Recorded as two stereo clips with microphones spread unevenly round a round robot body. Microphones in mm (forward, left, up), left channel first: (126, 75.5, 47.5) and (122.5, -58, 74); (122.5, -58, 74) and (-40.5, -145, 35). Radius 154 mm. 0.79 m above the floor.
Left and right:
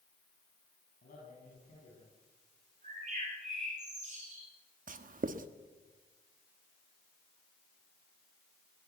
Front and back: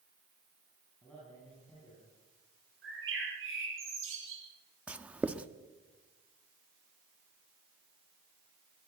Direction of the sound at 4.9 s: 70° right.